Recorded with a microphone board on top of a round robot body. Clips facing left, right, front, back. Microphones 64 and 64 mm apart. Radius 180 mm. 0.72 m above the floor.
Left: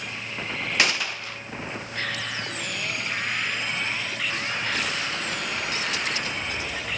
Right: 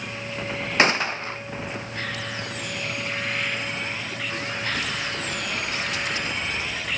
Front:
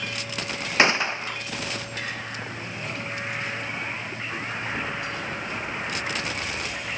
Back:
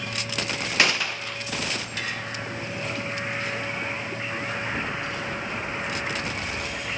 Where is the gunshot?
50° right, 1.3 m.